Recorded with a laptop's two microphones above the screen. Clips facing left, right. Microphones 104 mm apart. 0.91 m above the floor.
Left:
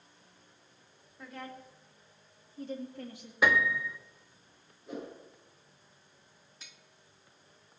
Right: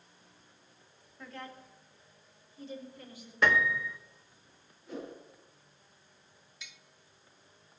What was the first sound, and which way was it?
A woman speaking, 10° left (ahead or behind).